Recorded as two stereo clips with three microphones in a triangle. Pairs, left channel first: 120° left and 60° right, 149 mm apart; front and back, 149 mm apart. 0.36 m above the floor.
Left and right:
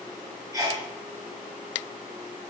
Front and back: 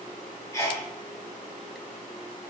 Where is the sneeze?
40° right, 0.8 m.